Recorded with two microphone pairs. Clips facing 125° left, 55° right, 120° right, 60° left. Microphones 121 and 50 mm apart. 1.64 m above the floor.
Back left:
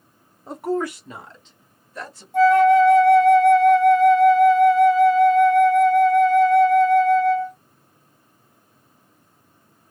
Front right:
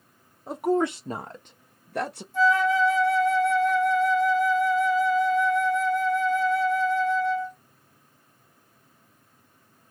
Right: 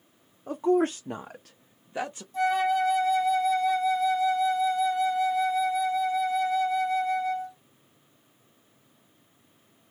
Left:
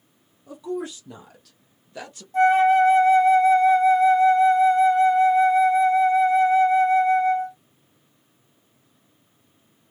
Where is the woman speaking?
135° right, 0.7 m; by 2.2 s 50° right, 1.1 m.